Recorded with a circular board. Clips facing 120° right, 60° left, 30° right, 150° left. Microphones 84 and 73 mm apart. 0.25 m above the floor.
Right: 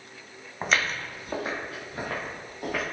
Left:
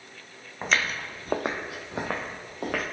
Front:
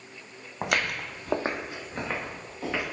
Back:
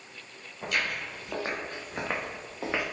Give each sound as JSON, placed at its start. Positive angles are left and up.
{"t": 0.6, "sound": "footsteps", "azimuth_deg": -35, "distance_m": 0.8}